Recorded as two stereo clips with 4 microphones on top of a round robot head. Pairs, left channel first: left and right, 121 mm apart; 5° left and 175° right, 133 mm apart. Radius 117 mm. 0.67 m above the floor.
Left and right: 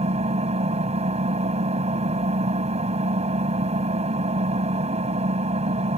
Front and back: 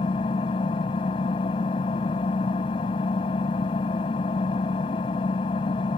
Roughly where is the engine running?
Ahead right.